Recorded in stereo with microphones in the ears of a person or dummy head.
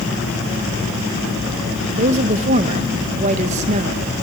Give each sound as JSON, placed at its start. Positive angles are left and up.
{"t": 1.9, "sound": "a woman speaking", "side_deg": -40, "distance_m": 1.0}